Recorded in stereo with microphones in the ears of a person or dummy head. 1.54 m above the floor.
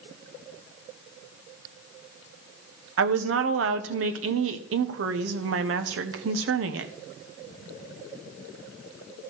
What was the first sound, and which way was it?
A woman speaking, 80° right.